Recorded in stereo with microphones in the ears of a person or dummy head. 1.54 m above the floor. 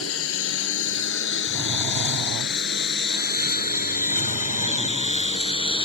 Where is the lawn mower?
80° left; by 5.8 s 30° left (ahead or behind).